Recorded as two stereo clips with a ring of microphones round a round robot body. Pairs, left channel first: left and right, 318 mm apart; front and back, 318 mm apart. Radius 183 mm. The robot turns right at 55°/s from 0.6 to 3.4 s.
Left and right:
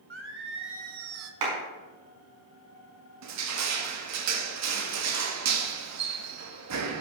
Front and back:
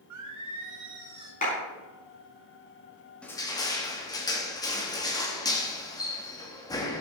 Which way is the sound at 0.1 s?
140° right.